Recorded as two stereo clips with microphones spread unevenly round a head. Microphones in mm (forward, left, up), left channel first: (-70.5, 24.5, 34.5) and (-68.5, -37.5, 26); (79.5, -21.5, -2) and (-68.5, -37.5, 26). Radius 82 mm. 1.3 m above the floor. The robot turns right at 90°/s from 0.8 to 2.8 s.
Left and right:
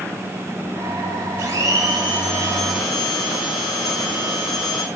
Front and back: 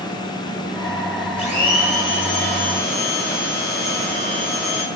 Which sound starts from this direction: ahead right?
A blender, at 1.4 s.